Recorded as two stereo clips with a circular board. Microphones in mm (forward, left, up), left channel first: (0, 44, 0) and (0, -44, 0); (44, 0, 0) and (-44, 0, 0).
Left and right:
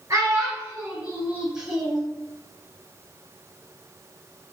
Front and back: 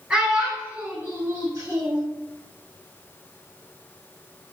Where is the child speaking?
105° right, 1.2 m; by 2.0 s 175° left, 1.1 m.